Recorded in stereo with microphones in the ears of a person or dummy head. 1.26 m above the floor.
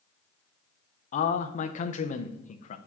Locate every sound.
1.1 s a man speaking: 45° left (ahead or behind), 0.5 m